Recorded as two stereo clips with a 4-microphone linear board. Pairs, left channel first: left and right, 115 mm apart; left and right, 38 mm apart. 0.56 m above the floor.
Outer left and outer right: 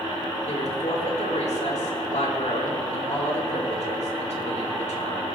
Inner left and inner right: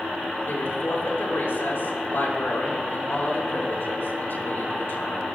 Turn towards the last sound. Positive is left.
turn(degrees=75)  # may be behind; listen again after turning